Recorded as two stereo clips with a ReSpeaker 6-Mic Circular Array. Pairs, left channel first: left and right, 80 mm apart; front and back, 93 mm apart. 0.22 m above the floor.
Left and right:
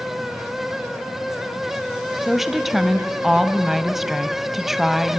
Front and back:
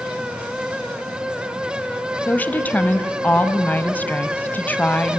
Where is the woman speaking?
10° right, 0.9 m.